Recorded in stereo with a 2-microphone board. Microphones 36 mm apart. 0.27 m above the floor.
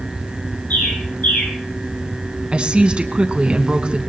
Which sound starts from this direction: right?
A woman speaking, at 2.5 s.